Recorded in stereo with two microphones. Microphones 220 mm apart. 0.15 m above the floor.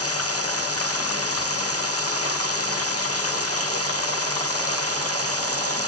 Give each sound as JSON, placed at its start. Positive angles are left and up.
{"t": 0.0, "sound": "running water", "side_deg": 85}